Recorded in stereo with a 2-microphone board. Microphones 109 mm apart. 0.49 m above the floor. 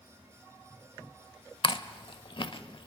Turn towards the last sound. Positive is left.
turn(degrees=50)  # may be behind; listen again after turning